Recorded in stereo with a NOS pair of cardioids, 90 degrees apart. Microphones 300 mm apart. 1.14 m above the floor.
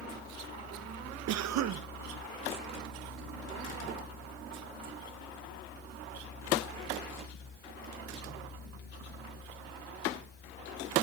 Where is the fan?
30° left, 6.5 m.